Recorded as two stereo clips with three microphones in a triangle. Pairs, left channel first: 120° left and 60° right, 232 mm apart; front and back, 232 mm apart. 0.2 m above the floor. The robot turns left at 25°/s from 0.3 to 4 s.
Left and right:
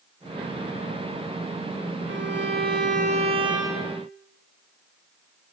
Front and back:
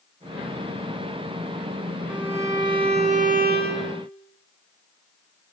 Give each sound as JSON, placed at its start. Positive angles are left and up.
{"t": 2.1, "sound": "a violin", "azimuth_deg": -95, "distance_m": 2.0}